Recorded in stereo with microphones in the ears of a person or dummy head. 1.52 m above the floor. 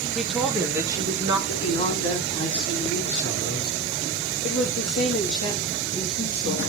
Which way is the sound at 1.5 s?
45° left (ahead or behind).